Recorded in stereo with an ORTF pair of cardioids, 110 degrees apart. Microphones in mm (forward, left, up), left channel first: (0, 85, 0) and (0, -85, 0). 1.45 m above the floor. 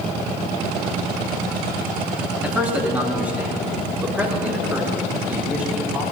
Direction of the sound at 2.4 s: 10° right.